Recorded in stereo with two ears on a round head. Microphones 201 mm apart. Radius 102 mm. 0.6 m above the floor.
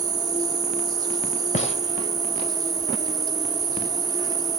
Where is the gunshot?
30° left (ahead or behind), 1.6 m.